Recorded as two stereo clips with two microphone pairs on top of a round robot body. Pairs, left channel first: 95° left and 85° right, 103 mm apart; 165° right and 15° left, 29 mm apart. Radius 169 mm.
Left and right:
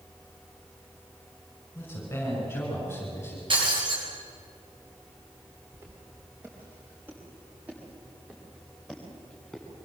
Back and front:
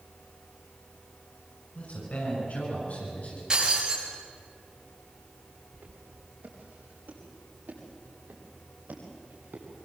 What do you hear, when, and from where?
1.8 s a man speaking: 165° left, 7 m
3.5 s breaking glass: 50° right, 7 m
5.7 s footsteps: 20° right, 8.5 m; by 9.7 s 10° left, 6 m